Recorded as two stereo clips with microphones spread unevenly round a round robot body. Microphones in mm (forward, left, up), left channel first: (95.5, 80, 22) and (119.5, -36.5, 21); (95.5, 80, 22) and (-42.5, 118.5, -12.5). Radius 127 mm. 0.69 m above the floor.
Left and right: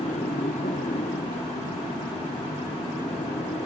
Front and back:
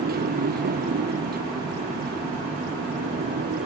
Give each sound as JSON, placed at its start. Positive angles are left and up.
{"t": 0.0, "sound": "a motorcycle", "azimuth_deg": 160}